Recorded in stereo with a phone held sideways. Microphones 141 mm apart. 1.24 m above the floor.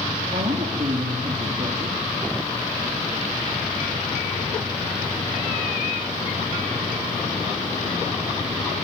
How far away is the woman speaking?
About 3 m.